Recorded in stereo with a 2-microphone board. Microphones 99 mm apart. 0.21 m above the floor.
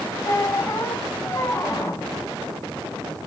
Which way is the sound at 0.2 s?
30° left (ahead or behind).